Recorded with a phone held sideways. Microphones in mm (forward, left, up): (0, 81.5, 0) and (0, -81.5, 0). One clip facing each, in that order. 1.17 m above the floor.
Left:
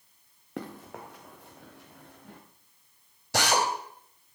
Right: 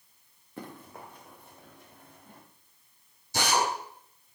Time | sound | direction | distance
0.6 | running footsteps | 75° left (ahead or behind) | 4 m
3.3 | a drill | 80° left | 4 m